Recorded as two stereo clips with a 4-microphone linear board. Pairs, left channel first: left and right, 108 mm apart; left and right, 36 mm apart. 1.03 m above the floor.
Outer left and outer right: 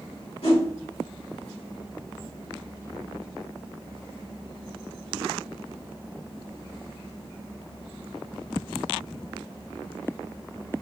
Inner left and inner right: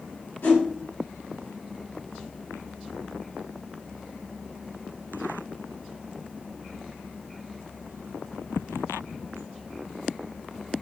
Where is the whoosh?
80° left, 2.5 m.